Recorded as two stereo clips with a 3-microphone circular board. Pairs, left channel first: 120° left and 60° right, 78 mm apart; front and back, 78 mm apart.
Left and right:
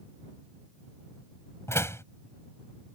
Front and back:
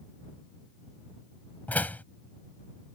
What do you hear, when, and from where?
1.7 s a door slam: 70° left